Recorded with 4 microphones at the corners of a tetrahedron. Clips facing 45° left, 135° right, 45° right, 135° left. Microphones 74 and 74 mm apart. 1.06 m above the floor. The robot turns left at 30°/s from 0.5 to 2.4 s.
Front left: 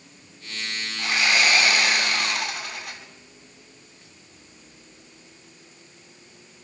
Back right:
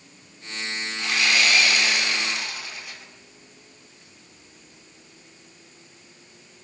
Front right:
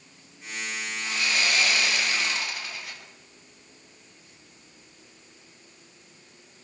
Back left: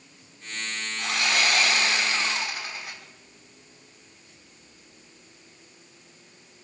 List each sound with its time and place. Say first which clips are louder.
1.0 s sawing: front left 1 dB, back left 3 dB; 110° left, 6 m; by 3.0 s 70° left, 6 m